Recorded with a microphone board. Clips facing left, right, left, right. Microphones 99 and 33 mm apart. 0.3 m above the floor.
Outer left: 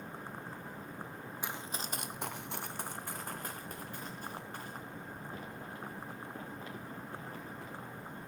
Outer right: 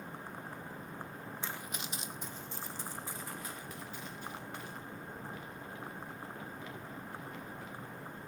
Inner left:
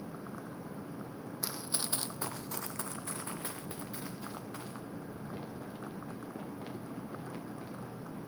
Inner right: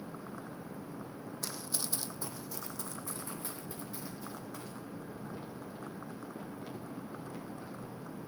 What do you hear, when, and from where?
1.4 s running footsteps: 15° left (ahead or behind), 0.7 m; by 8.3 s 35° left (ahead or behind), 6 m